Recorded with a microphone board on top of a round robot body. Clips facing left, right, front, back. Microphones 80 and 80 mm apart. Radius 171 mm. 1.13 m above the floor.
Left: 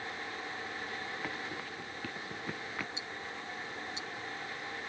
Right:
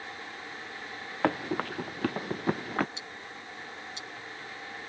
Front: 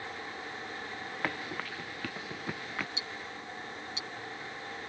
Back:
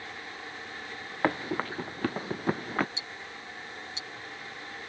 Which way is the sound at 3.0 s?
120° right.